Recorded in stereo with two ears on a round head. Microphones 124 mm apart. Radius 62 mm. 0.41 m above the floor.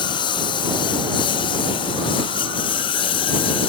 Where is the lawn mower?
35° left (ahead or behind); by 3.7 s 40° left (ahead or behind).